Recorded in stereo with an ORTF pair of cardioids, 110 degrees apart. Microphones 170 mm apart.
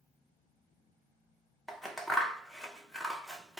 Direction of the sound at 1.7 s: Straight ahead.